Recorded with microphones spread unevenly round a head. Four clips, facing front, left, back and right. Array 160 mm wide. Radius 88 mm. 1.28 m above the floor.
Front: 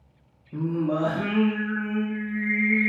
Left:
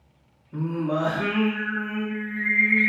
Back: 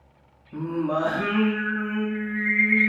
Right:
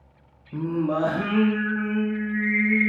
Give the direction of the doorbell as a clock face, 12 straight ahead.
I don't hear a doorbell.